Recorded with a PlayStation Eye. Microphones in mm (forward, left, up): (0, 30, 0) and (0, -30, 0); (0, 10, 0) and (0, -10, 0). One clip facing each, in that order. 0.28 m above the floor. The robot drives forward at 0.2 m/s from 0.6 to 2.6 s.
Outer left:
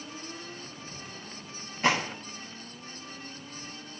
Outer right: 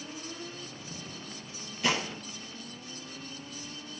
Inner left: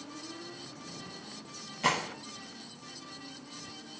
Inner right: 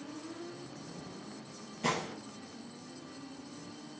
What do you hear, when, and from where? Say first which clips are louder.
1.8 s a gunshot: outer left 4 dB, inner left 4 dB; 40° left (ahead or behind), 1.0 m